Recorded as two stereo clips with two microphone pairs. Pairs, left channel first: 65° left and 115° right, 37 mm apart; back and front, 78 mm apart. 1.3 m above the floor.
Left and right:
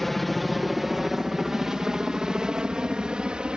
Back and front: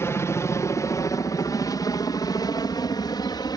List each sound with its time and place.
0.0 s a helicopter: 150° left; by 3.6 s 175° right